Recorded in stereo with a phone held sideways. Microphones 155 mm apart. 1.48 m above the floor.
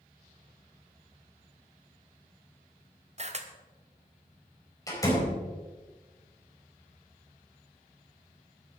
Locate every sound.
3.2 s a camera shutter: 45° right (ahead or behind), 1.1 m
4.9 s a door slam: 20° left (ahead or behind), 4.5 m